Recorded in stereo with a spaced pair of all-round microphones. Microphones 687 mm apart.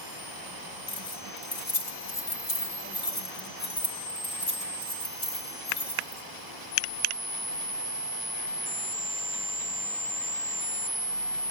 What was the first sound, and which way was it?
Keys jangling, 70° left (ahead or behind).